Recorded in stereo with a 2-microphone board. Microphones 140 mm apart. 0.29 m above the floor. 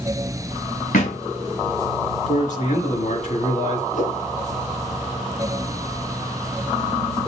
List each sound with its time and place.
0.9 s a thud: 80° left, 4 m
2.3 s a man speaking: 65° left (ahead or behind), 3 m
3.9 s a whoosh: 70° left (ahead or behind), 3.5 m